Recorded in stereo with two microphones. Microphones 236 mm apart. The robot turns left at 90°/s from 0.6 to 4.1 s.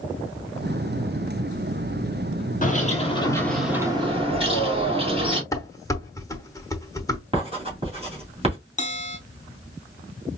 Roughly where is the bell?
Left.